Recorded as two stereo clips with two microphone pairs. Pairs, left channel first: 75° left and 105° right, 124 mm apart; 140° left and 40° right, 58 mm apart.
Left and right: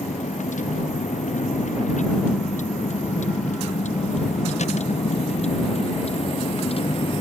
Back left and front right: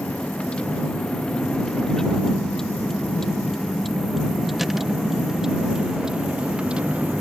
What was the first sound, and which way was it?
A vehicle, 70° left.